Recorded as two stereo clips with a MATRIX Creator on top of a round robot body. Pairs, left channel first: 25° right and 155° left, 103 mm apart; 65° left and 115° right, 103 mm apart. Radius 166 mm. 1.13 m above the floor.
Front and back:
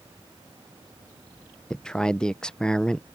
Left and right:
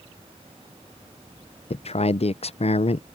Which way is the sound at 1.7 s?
60° left.